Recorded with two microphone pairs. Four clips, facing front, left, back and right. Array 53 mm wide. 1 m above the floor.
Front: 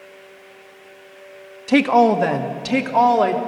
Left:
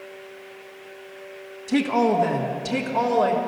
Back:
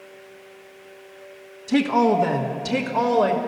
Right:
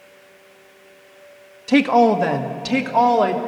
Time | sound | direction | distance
1.7 | a woman speaking | 35° right | 1.1 m